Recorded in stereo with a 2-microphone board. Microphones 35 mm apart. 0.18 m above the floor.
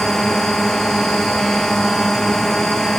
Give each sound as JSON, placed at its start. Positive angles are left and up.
{"t": 0.0, "sound": "a drone", "side_deg": 15}